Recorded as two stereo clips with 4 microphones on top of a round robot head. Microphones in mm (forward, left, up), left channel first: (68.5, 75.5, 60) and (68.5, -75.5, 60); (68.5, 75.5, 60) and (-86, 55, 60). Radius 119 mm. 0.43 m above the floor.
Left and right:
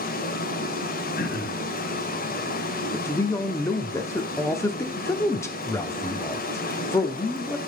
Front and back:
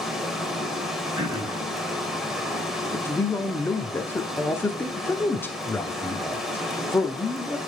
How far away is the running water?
About 1.6 m.